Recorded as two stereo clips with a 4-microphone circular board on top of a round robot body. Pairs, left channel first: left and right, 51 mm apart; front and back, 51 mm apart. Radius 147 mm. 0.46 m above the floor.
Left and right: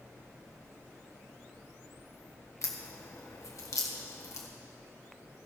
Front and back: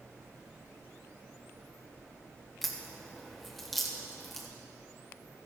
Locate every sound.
2.6 s a crack: 85° left, 2.0 m